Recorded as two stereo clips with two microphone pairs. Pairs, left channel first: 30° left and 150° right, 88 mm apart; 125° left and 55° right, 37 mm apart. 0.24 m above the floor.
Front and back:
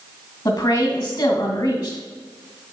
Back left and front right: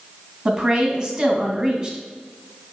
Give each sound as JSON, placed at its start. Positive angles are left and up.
{"t": 0.5, "sound": "a woman speaking", "azimuth_deg": -5, "distance_m": 2.0}